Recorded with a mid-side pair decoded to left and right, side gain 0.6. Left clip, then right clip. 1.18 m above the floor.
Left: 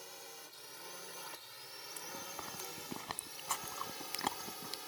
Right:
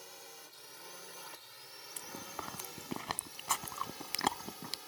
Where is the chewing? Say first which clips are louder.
Right 2 dB; 25° right.